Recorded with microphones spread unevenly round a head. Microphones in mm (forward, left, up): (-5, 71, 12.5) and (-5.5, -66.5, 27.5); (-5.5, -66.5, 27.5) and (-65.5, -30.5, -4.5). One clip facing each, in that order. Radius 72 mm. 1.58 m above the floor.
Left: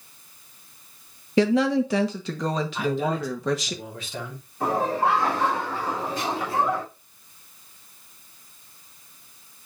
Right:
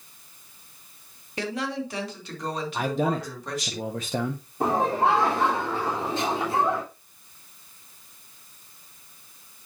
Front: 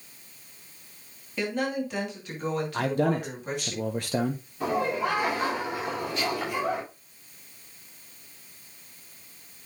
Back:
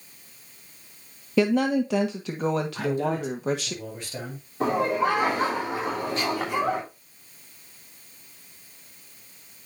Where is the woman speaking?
110° left, 1.5 m.